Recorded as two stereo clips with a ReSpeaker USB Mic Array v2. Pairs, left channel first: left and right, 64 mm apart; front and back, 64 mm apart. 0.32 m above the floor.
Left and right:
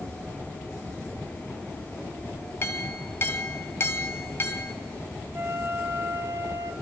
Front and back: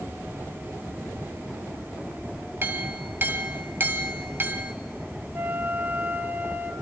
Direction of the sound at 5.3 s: 140° right.